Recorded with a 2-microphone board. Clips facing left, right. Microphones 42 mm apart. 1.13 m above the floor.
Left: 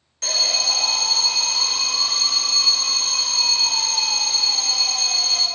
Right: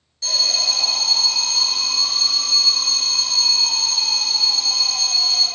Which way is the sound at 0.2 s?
70° left (ahead or behind).